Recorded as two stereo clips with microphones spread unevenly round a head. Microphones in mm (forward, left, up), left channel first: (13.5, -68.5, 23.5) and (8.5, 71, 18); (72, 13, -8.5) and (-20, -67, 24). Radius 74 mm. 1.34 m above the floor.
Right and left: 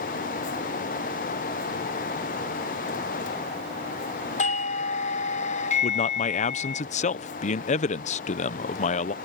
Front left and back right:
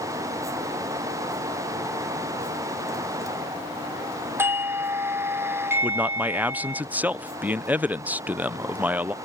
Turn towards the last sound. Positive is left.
turn(degrees=-55)